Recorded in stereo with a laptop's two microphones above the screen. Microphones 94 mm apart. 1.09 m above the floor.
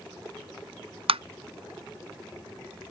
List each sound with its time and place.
1.1 s tapping: 80° right